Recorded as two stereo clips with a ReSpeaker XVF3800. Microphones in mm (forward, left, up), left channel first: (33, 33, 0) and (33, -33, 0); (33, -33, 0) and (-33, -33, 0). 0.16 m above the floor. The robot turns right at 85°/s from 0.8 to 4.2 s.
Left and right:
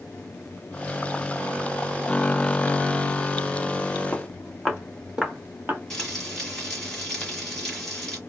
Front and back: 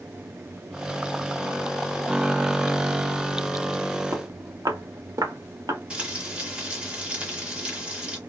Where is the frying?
160° left, 1.7 m.